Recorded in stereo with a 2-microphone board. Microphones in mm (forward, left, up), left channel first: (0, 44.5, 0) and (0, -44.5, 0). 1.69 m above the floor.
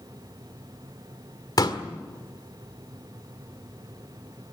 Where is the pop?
50° left (ahead or behind), 1.8 m.